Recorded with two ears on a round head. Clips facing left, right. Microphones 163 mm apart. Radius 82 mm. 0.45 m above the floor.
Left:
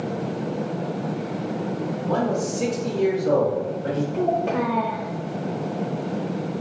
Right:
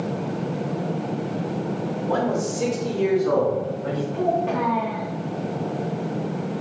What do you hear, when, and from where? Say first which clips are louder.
2.1 s a man speaking: even; 15° right (ahead or behind), 1.4 m; by 4.0 s 20° left (ahead or behind), 1.1 m
4.1 s a child speaking: right 1 dB; 45° left (ahead or behind), 0.7 m